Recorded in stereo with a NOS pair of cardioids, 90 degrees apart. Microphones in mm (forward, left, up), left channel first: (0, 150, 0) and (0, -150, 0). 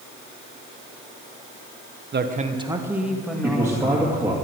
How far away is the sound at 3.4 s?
About 2 m.